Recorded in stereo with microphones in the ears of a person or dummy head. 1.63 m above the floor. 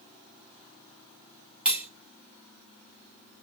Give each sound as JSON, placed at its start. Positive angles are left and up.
{"t": 1.6, "sound": "cutlery clinking", "side_deg": -5, "distance_m": 1.8}